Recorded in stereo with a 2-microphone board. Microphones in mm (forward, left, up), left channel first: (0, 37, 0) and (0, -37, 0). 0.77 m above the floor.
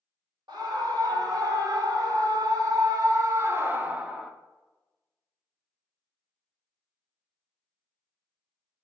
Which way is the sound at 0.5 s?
75° right (ahead or behind).